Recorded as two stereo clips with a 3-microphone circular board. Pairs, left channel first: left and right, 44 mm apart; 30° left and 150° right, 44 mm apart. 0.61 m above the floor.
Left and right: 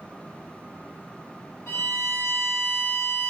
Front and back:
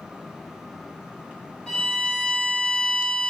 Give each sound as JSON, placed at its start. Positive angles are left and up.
{"t": 1.7, "sound": "a violin", "azimuth_deg": 110, "distance_m": 1.4}